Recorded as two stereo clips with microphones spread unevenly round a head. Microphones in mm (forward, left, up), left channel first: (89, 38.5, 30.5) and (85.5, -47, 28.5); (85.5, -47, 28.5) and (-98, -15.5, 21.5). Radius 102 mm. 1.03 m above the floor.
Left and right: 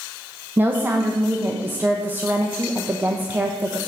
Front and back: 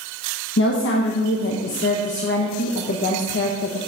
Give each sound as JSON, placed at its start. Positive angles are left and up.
{"t": 0.6, "sound": "a woman speaking", "azimuth_deg": -25, "distance_m": 0.8}